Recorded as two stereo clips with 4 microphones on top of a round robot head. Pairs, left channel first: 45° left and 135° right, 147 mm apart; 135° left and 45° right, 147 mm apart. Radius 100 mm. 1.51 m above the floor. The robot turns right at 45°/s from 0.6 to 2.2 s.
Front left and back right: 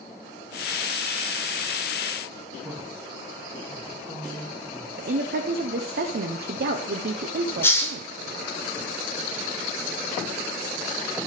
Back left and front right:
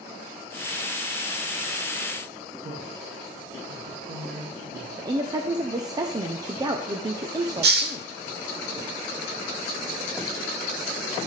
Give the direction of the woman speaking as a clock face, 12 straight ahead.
4 o'clock.